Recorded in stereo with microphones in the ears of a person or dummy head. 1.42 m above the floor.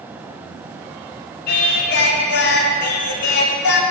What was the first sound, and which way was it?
Singing, 55° left (ahead or behind).